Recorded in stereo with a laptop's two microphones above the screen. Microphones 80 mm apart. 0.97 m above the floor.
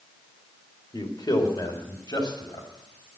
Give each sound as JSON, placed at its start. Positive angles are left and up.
{"t": 0.9, "sound": "a man speaking", "side_deg": 60, "distance_m": 2.5}